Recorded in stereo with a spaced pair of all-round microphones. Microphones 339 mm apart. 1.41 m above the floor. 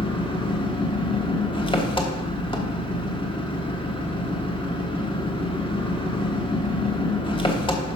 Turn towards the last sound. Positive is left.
turn(degrees=15)  # may be behind; listen again after turning